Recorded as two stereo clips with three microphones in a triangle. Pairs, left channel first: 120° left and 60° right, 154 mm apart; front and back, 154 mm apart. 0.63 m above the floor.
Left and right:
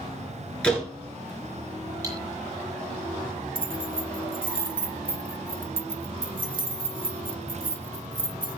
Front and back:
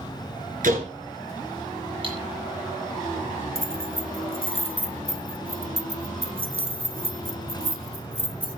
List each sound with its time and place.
0.6 s a door slam: 155° right, 8 m
2.0 s cutlery clinking: 125° right, 9.5 m
3.5 s keys jangling: 45° right, 1.6 m